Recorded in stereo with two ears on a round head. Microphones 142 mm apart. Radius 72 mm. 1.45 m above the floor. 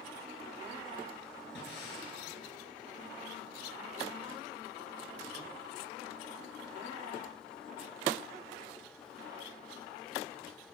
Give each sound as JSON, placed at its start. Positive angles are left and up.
{"t": 1.6, "sound": "breathing", "side_deg": 75, "distance_m": 9.5}